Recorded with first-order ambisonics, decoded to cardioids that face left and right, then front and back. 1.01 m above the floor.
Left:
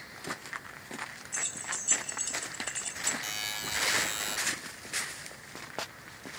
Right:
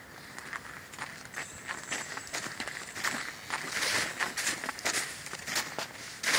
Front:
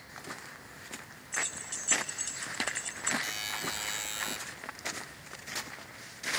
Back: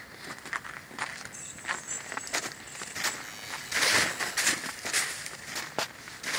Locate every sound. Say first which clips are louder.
1.3 s keys jangling: left 5 dB, even; 55° left, 3.5 m
3.2 s a buzzer: left 2 dB, front 4 dB; 55° left, 1.8 m